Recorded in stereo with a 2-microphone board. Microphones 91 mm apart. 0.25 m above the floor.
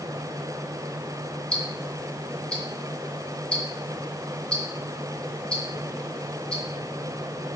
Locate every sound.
1.5 s ticking: 10° left (ahead or behind), 1.6 m